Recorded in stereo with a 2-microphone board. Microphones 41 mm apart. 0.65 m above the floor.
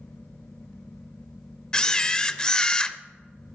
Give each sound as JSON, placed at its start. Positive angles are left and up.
{"t": 1.7, "sound": "a camera shutter", "side_deg": 20, "distance_m": 0.5}